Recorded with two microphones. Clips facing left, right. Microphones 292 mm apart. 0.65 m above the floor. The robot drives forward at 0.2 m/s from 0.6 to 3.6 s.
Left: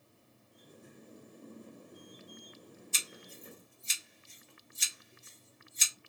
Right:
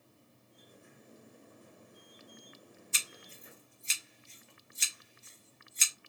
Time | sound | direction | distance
2.9 | scissors | 50° left (ahead or behind) | 2.0 m